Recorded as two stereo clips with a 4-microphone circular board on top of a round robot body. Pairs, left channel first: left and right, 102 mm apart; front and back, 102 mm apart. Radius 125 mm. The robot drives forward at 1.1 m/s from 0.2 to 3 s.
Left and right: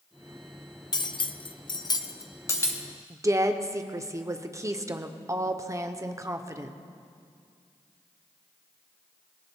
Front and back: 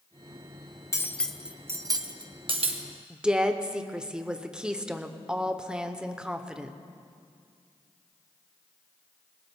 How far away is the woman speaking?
About 1.1 m.